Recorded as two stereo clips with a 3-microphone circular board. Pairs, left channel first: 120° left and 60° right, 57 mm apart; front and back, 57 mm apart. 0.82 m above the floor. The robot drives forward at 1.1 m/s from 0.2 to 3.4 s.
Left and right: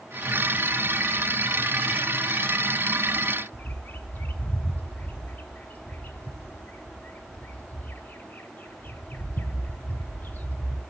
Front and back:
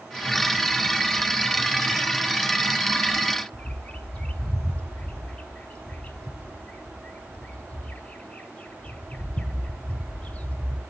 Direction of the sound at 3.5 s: 65° left.